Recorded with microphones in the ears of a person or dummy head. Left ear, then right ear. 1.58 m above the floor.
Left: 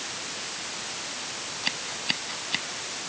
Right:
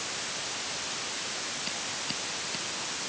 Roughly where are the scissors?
Left.